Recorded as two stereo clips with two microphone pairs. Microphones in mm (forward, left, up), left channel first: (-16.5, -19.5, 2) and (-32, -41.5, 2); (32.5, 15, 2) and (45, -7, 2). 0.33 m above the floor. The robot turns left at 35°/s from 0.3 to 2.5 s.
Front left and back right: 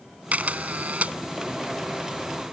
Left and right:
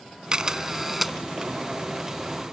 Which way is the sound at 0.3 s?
115° right.